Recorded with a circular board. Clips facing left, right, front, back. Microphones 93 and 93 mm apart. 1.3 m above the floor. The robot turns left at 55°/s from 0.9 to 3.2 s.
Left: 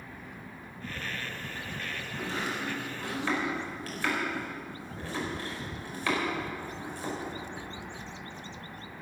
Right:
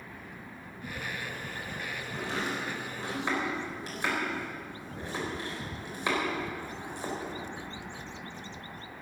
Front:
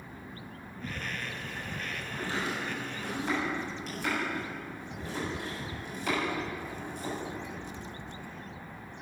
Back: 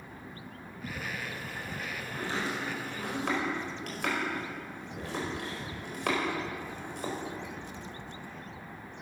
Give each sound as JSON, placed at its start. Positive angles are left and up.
{"t": 2.1, "sound": "chopping", "azimuth_deg": -100, "distance_m": 5.0}